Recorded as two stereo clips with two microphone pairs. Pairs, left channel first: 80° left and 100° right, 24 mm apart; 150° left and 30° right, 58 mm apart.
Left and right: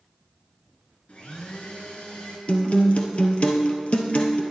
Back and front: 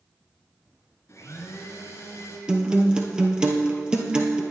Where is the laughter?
No laughter in this recording.